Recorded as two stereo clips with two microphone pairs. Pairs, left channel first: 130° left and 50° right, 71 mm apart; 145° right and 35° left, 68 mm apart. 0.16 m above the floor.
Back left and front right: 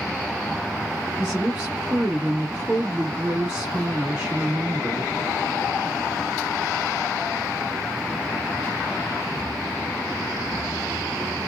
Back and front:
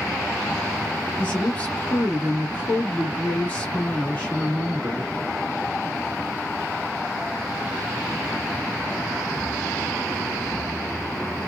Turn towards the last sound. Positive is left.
turn(degrees=-110)